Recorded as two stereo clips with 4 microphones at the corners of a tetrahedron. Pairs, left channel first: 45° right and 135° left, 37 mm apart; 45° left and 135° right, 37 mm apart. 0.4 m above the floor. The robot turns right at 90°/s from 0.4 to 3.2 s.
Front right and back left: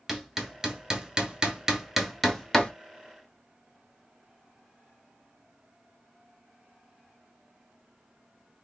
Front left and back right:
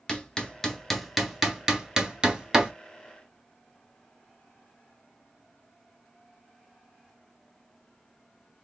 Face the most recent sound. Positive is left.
turn(degrees=-35)